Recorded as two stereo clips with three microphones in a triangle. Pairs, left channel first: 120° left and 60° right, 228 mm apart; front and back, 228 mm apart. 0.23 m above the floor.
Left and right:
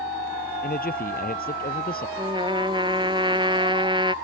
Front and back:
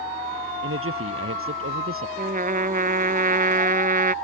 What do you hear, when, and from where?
0.6 s a man speaking: 165° left
2.2 s a trumpet: 125° right